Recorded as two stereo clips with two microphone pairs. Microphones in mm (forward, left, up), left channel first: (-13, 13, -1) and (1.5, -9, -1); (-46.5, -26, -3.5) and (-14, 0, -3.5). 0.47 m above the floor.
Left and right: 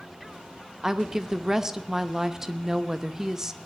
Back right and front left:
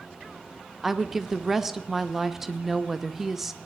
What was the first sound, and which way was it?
A woman speaking, 35° right.